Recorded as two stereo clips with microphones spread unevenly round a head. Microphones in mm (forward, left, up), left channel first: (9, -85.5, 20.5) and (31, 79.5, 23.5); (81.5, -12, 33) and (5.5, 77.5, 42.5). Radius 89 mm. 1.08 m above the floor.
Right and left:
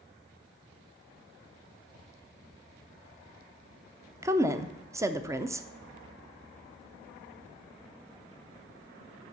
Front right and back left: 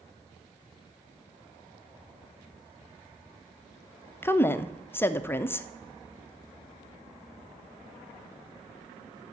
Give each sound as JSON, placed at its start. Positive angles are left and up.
{"t": 4.2, "sound": "a woman speaking", "azimuth_deg": 15, "distance_m": 0.6}